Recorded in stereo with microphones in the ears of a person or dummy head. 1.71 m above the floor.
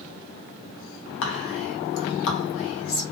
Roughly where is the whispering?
Left.